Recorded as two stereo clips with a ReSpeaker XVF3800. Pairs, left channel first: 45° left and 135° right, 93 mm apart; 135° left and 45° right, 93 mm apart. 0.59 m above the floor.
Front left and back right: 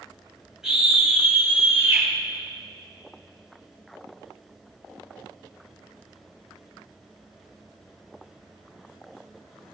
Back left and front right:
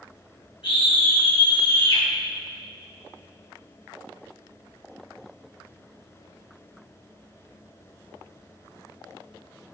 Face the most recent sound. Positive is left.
turn(degrees=175)